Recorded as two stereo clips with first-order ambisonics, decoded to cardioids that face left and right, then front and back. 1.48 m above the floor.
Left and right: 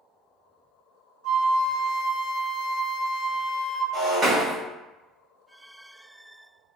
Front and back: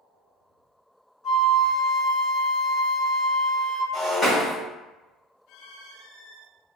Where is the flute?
75° right, 0.8 m.